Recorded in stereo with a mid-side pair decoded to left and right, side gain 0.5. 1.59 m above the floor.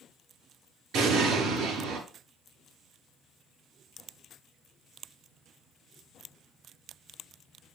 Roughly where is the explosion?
Ahead right.